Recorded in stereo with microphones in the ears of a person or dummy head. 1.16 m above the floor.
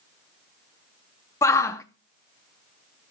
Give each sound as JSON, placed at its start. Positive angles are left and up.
{"t": 1.4, "sound": "a shout", "side_deg": 15, "distance_m": 0.7}